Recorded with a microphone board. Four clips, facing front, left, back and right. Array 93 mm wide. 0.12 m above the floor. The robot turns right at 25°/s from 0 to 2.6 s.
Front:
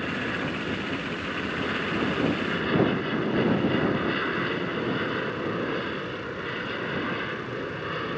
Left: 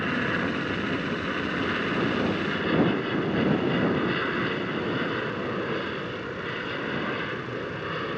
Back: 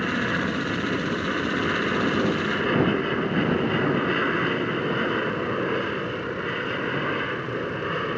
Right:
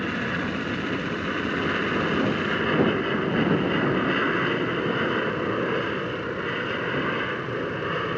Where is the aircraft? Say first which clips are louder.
Left 1 dB, back 4 dB; 160° left; by 8.2 s 135° right.